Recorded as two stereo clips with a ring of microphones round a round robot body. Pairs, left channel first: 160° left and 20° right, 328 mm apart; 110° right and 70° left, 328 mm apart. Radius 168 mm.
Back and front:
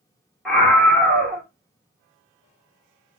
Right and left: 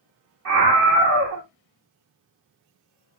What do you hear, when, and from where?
0.5 s a scream: 70° left, 1.5 m